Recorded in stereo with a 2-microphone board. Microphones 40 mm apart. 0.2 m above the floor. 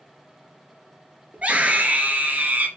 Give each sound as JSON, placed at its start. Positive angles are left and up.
{"t": 1.3, "sound": "a scream", "side_deg": -35, "distance_m": 3.5}